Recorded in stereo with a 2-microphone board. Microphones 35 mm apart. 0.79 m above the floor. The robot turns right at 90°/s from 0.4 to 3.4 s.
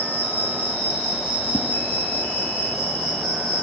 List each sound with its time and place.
0.0 s an insect: 110° left, 6 m; by 3.6 s 20° left, 6 m
1.5 s a whoosh: 25° left (ahead or behind), 0.8 m; by 1.7 s 35° left (ahead or behind), 0.8 m